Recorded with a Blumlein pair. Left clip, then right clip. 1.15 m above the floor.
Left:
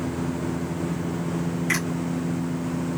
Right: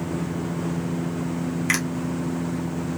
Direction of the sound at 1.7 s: 25° right.